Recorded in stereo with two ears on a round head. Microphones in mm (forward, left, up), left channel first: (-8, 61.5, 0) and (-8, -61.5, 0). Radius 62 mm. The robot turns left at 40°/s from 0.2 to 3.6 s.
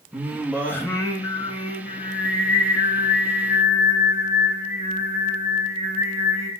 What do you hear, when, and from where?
0.1 s singing: 175° right, 2.5 m; by 6.5 s 50° left, 2.5 m